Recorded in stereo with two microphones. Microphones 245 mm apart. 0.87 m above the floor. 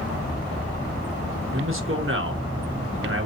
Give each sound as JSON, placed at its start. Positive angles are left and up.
{"t": 1.5, "sound": "a man speaking", "side_deg": -55, "distance_m": 0.9}